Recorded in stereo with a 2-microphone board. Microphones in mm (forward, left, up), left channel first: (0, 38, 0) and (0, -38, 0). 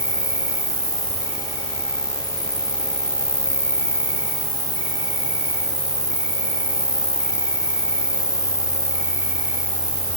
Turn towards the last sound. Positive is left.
turn(degrees=-55)  # may be behind; listen again after turning